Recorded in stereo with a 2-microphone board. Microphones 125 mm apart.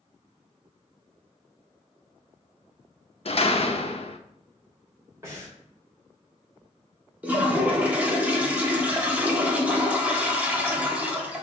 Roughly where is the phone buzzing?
I don't hear a phone buzzing.